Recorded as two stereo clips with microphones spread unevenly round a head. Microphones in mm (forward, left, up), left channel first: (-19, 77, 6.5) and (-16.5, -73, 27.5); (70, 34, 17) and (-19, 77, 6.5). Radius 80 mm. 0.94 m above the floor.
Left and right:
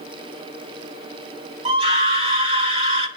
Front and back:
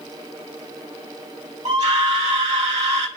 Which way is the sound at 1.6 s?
140° right.